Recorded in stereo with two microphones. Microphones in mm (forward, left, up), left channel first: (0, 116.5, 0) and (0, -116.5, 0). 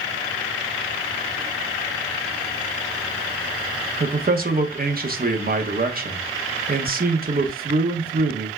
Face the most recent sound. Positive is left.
turn(degrees=-40)  # may be behind; listen again after turning